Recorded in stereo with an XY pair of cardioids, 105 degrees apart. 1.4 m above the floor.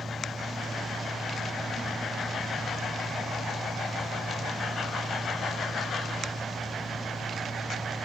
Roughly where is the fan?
Ahead.